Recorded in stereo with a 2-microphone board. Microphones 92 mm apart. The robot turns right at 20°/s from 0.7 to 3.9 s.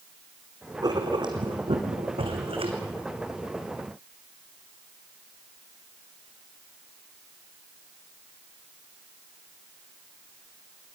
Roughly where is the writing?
Behind right.